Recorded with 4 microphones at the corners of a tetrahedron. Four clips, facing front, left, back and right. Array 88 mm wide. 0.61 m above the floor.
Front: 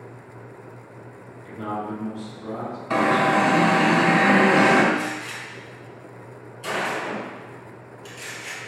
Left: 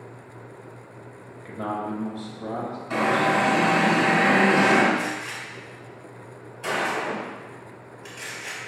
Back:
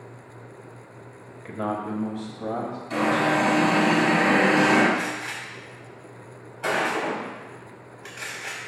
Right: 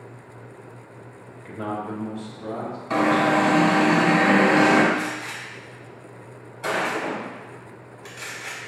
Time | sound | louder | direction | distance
1.4 | a man speaking | even, back 1 dB | 175° left | 2 m
2.9 | an alarm | right 2 dB, front 3 dB | 30° right | 2.5 m
4.9 | a gunshot | even, front 1 dB | 155° right | 3 m